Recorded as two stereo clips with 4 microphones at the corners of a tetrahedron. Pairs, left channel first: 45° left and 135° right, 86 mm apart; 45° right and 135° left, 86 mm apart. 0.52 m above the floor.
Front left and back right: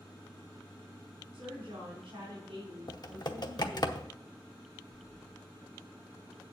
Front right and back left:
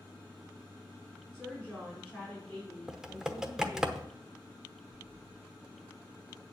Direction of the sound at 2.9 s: 55° left.